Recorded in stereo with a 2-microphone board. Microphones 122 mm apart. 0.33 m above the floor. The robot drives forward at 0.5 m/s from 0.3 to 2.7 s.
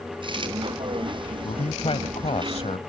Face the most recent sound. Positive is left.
turn(degrees=55)  # may be behind; listen again after turning